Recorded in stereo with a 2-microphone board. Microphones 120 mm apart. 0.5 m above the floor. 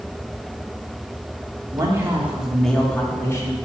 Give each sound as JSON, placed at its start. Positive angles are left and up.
{"t": 1.7, "sound": "a man speaking", "side_deg": -30, "distance_m": 1.2}